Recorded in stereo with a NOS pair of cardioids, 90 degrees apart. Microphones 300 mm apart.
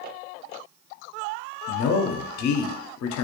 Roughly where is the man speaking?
Left.